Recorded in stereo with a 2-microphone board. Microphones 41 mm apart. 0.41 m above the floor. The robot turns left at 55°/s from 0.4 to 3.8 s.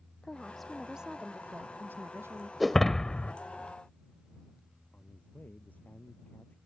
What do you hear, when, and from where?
0.2 s a woman speaking: 15° left; by 2.5 s 100° right
2.6 s breaking glass: straight behind; by 3.3 s 140° left
4.9 s a man speaking: 45° left (ahead or behind)